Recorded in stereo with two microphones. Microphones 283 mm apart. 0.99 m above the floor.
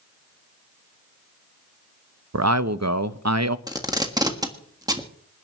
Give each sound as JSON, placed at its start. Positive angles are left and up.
{"t": 2.3, "sound": "a man speaking", "side_deg": -65, "distance_m": 0.7}
{"t": 3.7, "sound": "tape being pulled", "side_deg": -15, "distance_m": 1.5}